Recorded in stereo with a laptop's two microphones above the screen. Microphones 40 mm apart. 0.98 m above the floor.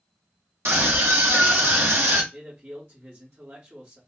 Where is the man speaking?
55° right (ahead or behind), 1.8 m.